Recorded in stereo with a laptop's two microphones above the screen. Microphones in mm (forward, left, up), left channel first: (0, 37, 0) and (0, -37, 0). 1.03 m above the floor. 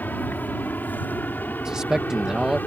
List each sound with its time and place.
0.0 s an aircraft: 25° left (ahead or behind)
1.6 s a man speaking: 10° right (ahead or behind)